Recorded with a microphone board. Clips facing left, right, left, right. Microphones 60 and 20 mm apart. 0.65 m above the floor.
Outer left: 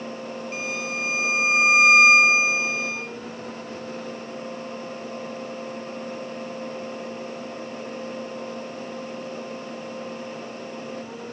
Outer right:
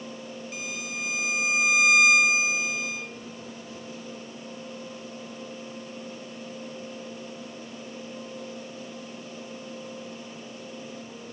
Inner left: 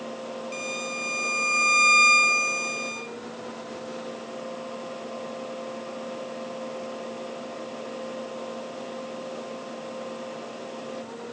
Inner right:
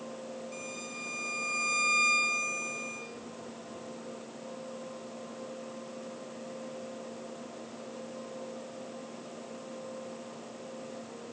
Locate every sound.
0.5 s a violin: 40° left (ahead or behind), 1.3 m